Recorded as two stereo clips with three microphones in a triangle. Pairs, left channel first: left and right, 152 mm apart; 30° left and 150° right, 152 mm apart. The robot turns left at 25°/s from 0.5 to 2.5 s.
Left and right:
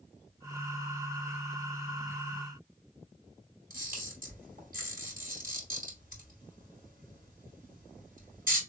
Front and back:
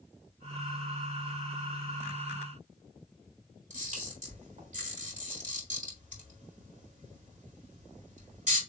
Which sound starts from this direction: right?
A camera shutter, at 3.7 s.